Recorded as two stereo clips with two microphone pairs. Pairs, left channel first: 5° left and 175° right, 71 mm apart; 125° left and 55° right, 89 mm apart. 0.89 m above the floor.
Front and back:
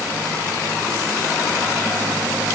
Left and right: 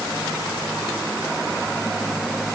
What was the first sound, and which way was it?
Only background noise.